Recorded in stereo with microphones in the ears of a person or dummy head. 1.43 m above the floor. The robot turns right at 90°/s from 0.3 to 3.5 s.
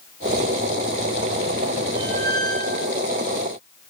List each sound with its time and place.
1.9 s a squeak: 175° right, 2 m; by 2.9 s 95° right, 2 m